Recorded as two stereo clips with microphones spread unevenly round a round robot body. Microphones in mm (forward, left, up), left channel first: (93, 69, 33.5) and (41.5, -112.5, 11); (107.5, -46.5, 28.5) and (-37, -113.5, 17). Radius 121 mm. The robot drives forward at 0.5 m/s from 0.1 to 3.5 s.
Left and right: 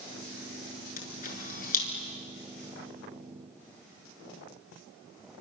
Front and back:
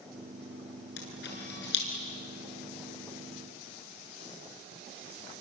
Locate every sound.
1.0 s a camera shutter: 35° left, 7 m